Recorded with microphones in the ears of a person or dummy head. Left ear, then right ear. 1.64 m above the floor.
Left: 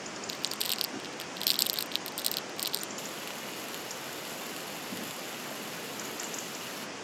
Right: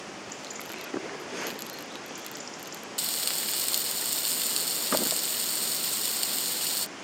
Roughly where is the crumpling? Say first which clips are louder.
Left 9 dB; left.